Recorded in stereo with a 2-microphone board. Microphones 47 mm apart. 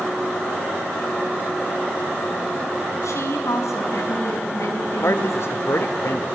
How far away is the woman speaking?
About 5.5 m.